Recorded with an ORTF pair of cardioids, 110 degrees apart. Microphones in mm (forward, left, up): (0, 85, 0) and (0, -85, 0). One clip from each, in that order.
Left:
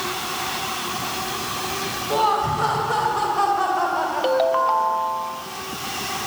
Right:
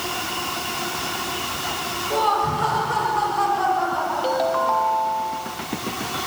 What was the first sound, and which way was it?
Laughter, 20° left.